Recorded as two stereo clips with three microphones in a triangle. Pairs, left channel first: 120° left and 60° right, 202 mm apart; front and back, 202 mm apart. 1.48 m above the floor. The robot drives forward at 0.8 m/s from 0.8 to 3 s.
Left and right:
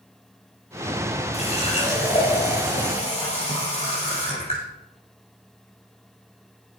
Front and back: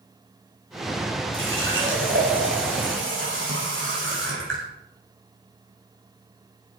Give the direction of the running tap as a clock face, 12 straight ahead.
6 o'clock.